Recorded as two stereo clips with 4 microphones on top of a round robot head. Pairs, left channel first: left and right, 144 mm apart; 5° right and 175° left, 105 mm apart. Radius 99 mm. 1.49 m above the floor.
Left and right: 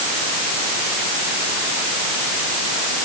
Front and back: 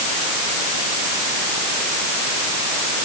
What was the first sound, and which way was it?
Only background noise.